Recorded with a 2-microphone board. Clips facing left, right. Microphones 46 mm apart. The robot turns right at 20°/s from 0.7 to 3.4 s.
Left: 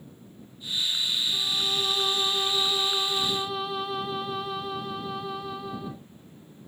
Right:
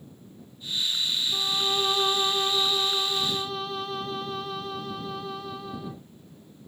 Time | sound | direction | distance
1.3 | a violin | 35° right | ?